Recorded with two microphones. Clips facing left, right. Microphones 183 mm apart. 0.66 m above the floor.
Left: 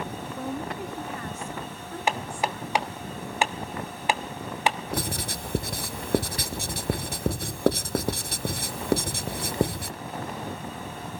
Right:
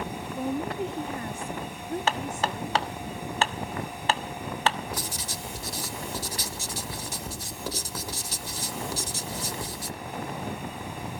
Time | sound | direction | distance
0.4 | a woman speaking | 15° right (ahead or behind) | 1.3 m
2.1 | hammering | 15° left (ahead or behind) | 1.1 m
4.9 | writing | 65° left (ahead or behind) | 0.8 m